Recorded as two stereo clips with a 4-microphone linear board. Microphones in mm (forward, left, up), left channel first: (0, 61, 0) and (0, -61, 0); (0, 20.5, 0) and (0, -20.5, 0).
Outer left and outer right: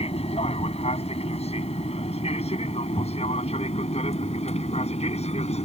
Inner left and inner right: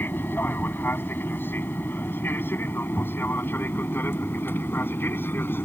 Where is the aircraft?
60° left (ahead or behind); by 5.7 s 65° left (ahead or behind).